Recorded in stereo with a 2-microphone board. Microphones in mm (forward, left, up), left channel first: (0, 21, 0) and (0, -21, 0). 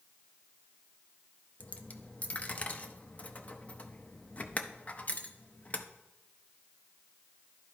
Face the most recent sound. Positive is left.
turn(degrees=35)  # may be behind; listen again after turning